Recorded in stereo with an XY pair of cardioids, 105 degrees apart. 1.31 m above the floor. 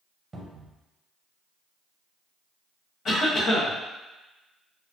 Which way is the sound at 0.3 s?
25° right.